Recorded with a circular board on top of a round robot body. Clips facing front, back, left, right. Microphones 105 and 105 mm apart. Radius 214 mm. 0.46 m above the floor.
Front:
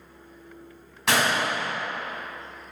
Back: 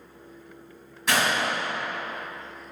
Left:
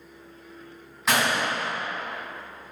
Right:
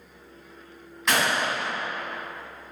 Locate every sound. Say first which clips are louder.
1.1 s a gunshot: front 1 dB, even; 5° left, 1.8 m